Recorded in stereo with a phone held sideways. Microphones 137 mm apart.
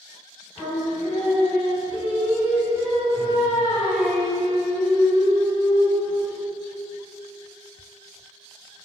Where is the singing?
30° left (ahead or behind), 1.8 m.